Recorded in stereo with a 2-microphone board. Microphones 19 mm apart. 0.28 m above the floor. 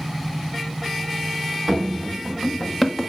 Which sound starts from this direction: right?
Running footsteps, at 1.7 s.